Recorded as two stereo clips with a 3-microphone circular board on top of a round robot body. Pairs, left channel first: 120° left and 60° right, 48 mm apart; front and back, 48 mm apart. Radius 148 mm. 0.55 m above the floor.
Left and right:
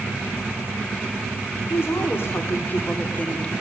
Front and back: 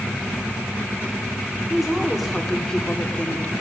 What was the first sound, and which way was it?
A woman speaking, 95° left.